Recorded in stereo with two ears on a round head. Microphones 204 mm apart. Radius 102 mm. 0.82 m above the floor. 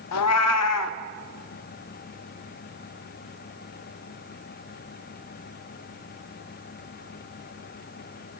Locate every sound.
0.1 s a cat meowing: 75° left (ahead or behind), 0.7 m